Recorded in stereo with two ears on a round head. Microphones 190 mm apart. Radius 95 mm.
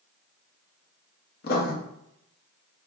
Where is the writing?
45° left (ahead or behind), 0.6 m.